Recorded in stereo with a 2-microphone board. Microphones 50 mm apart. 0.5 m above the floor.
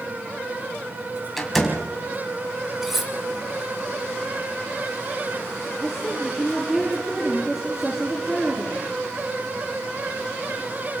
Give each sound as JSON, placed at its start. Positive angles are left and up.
{"t": 1.4, "sound": "a door slam", "side_deg": 0, "distance_m": 3.0}
{"t": 2.8, "sound": "cutlery clinking", "side_deg": -5, "distance_m": 2.0}
{"t": 5.8, "sound": "a woman speaking", "side_deg": -10, "distance_m": 8.0}